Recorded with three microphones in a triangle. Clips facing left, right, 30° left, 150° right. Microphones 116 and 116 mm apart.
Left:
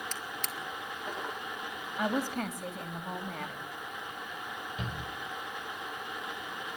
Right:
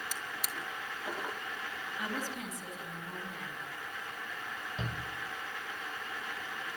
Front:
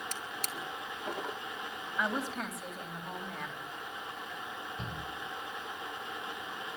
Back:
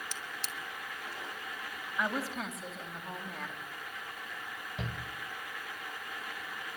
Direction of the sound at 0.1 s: 10° right.